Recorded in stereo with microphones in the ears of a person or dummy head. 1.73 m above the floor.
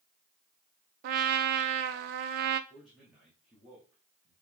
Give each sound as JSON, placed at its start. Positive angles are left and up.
{"t": 1.0, "sound": "a trumpet", "side_deg": -50, "distance_m": 0.7}
{"t": 2.7, "sound": "a man speaking", "side_deg": 0, "distance_m": 2.5}